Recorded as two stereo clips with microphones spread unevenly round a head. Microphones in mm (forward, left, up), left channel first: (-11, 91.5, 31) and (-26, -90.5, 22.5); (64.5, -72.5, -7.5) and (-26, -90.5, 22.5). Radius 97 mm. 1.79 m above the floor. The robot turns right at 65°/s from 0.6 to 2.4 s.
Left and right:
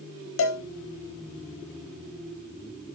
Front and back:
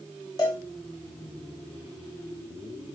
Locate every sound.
0.4 s a cowbell: 90° left, 0.6 m